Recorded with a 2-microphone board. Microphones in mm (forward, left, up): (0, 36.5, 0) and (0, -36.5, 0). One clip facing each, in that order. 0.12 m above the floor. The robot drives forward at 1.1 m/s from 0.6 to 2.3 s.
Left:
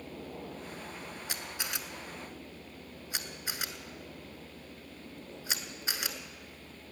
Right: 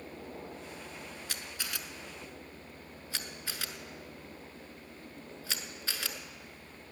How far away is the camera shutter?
About 1.1 m.